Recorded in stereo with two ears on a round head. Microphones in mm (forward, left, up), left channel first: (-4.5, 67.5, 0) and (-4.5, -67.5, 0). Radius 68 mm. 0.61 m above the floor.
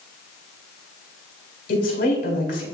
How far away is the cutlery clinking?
I don't hear cutlery clinking.